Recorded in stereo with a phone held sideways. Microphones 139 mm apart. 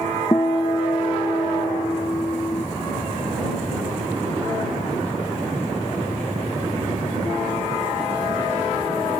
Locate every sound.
0.3 s a guitar: 25° left (ahead or behind)